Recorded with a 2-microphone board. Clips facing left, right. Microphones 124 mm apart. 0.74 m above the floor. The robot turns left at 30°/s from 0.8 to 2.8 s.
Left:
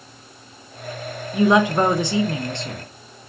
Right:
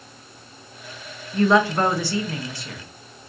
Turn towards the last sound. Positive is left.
turn(degrees=25)  # may be behind; listen again after turning